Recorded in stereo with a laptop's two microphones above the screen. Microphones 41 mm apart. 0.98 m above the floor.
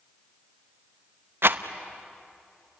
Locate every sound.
1.4 s a rattle: 60° right (ahead or behind), 0.8 m